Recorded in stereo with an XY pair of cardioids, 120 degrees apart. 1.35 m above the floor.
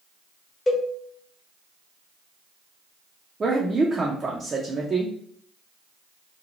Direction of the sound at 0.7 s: 25° left.